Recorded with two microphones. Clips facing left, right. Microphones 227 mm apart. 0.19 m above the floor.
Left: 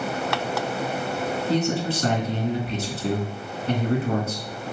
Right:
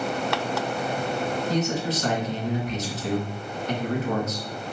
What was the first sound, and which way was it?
A man speaking, 35° left (ahead or behind).